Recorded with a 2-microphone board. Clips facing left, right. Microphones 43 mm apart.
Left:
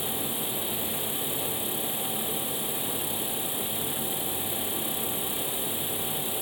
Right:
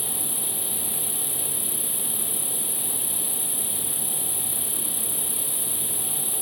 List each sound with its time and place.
0.0 s an insect: 15° right (ahead or behind), 1.4 m